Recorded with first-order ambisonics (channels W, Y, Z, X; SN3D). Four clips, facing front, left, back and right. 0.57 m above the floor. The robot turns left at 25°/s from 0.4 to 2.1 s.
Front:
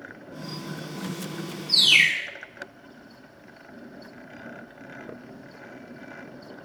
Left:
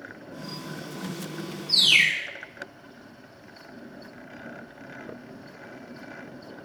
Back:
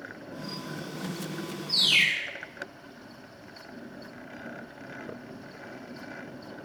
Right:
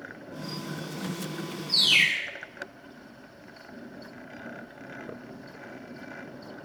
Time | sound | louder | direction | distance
1.7 | a bird | left 2 dB, front 5 dB | 50° left | 0.7 m